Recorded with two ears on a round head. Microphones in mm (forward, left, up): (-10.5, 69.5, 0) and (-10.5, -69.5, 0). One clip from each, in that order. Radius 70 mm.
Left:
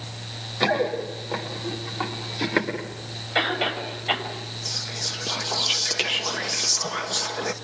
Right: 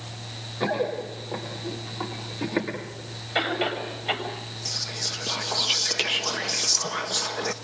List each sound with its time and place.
0.6 s running footsteps: 65° left (ahead or behind), 8.5 m; by 2.7 s 55° left (ahead or behind), 8 m
3.4 s a cough: centre (ahead or behind), 7 m
4.7 s whispering: 5° right (ahead or behind), 1.0 m